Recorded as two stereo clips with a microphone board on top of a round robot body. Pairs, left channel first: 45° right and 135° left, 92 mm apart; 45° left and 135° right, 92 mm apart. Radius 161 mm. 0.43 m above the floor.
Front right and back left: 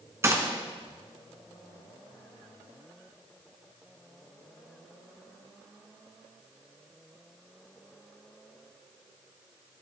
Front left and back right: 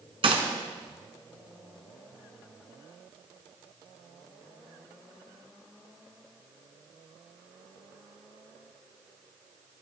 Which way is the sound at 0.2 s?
165° right.